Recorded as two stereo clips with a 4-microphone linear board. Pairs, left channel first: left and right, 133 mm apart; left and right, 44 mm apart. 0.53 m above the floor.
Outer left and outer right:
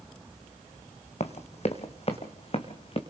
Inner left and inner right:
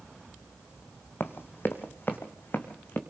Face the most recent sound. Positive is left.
turn(degrees=50)  # may be behind; listen again after turning